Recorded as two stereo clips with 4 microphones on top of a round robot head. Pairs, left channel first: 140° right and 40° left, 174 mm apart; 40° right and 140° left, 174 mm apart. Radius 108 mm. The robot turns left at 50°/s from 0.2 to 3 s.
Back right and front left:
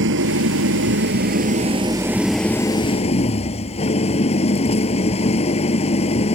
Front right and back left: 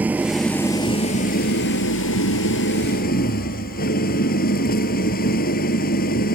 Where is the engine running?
60° left; by 6.3 s 80° right.